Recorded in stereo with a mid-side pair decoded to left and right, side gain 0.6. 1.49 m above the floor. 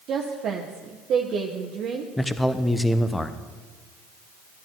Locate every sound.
0.1 s a woman speaking: 50° right, 1.0 m
2.2 s a man speaking: 10° left, 0.8 m